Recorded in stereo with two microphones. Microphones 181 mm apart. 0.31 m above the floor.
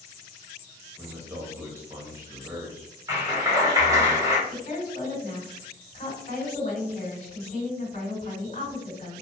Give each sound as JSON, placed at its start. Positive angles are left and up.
{"t": 1.0, "sound": "a man speaking", "side_deg": -15, "distance_m": 1.2}
{"t": 3.1, "sound": "a clap", "side_deg": -20, "distance_m": 0.9}
{"t": 4.5, "sound": "a woman speaking", "side_deg": 45, "distance_m": 1.7}